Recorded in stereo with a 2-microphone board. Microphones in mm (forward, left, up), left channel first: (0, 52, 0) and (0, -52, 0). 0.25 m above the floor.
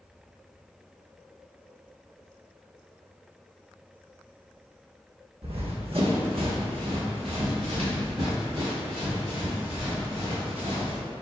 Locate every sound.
5.4 s running footsteps: 75° right (ahead or behind), 0.8 m; by 11.0 s 55° right (ahead or behind), 3.5 m